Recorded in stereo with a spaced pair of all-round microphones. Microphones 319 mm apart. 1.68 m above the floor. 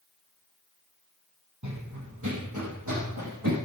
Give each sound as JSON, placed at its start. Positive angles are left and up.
{"t": 1.6, "sound": "running footsteps", "side_deg": -60, "distance_m": 3.0}